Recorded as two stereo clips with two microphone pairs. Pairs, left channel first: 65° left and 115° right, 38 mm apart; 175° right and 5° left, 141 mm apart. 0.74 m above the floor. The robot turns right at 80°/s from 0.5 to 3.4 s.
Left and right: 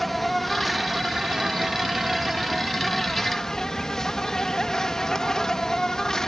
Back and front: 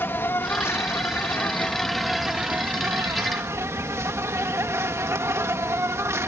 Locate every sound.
0.0 s an insect: 150° left; by 6.3 s 20° left